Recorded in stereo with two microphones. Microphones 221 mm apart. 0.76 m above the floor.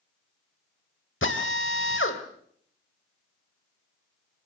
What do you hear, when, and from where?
1.2 s a drill: 65° left (ahead or behind), 3 m